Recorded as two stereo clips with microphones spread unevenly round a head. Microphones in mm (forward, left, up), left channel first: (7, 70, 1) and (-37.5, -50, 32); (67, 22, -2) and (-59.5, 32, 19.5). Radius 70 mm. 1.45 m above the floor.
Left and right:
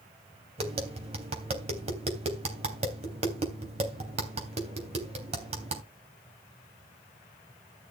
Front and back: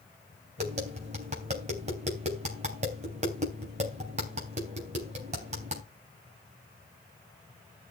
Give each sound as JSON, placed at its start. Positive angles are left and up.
{"t": 0.6, "sound": "tapping", "azimuth_deg": -145, "distance_m": 3.5}